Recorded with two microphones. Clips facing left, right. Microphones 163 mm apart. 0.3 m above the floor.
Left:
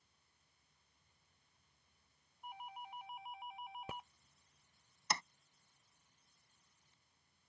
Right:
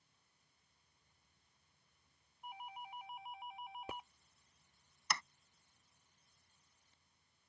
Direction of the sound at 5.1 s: 25° left (ahead or behind).